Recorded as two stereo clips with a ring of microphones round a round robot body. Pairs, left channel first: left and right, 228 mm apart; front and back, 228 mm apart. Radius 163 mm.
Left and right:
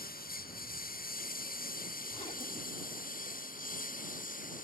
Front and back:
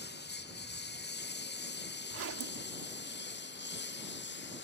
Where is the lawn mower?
40° left.